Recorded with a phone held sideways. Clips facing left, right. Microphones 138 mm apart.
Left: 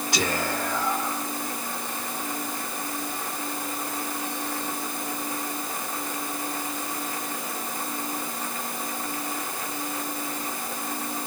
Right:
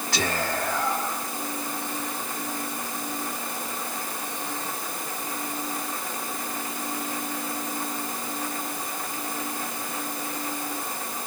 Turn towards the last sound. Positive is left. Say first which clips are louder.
# even
turn(degrees=15)  # may be behind; listen again after turning